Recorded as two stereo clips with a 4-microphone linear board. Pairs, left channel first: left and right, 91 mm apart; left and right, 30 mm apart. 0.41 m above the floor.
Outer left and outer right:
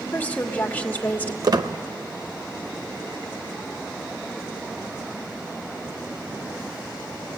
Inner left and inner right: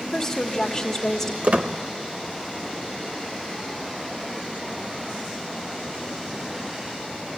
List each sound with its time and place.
0.1 s a woman speaking: 20° left (ahead or behind), 1.4 m
1.4 s a squeak: 50° right (ahead or behind), 0.7 m